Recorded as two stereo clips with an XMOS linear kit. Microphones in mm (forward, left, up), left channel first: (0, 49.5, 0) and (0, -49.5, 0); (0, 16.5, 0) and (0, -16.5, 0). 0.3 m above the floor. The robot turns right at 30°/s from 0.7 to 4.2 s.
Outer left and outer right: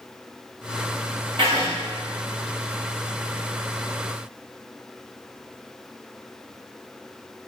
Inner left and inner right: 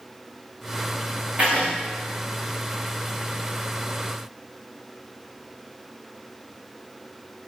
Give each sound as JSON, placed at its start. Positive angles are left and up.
{"t": 1.4, "sound": "writing", "side_deg": -50, "distance_m": 6.5}